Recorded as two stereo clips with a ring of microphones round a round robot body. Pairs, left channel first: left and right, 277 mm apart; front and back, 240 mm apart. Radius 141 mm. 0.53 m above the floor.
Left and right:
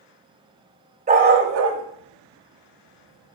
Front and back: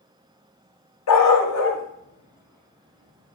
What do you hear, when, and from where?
1.1 s a dog barking: 25° right, 1.5 m; by 3.4 s 90° right, 3 m